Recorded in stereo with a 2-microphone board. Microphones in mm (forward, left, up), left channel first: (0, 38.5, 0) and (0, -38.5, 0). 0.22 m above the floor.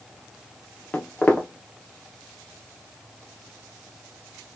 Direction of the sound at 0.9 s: 25° left (ahead or behind).